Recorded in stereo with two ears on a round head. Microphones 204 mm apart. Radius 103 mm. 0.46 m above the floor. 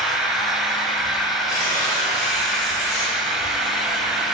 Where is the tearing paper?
15° left (ahead or behind), 2 m.